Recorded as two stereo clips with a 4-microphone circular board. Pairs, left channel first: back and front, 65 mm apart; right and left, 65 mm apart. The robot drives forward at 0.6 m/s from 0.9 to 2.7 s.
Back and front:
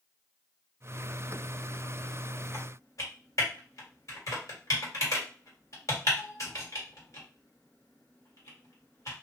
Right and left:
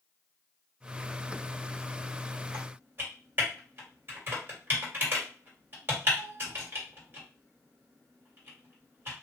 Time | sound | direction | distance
2.5 | typing on a keyboard | 145° left | 1.4 m